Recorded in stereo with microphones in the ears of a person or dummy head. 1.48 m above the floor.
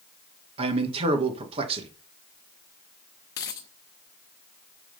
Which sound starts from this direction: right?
A man speaking, at 0.6 s.